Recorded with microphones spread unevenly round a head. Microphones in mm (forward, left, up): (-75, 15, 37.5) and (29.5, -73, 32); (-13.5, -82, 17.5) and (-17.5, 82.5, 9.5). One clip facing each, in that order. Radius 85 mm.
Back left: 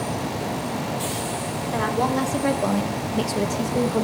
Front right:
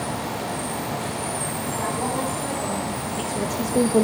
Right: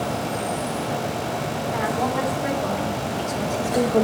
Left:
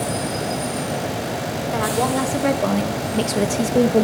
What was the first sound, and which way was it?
A woman speaking, 125° left.